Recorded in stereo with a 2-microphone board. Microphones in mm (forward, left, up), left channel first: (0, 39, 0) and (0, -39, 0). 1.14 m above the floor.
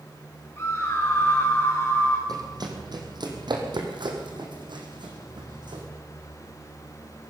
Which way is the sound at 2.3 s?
60° right (ahead or behind).